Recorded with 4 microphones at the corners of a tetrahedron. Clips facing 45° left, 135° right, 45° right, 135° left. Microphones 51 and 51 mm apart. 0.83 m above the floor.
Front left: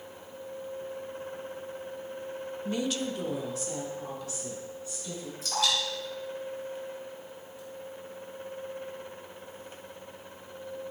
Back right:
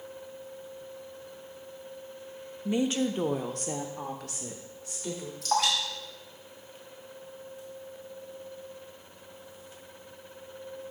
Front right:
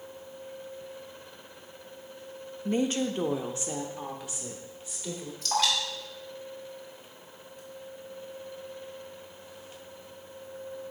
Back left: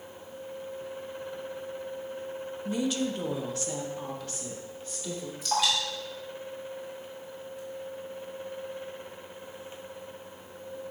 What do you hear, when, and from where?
2.6 s a woman speaking: 65° right, 0.5 m; by 5.3 s 125° right, 1.8 m
5.4 s dripping: 140° right, 2.5 m